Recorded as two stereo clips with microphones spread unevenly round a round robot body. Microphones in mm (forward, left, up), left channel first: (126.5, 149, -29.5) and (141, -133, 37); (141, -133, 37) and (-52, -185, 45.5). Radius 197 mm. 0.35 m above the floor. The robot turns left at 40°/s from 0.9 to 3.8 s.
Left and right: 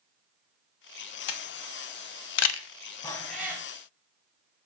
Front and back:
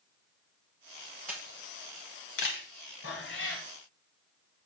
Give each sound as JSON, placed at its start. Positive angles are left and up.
{"t": 1.3, "sound": "a camera shutter", "azimuth_deg": 105, "distance_m": 0.6}
{"t": 3.0, "sound": "a cat meowing", "azimuth_deg": 20, "distance_m": 1.7}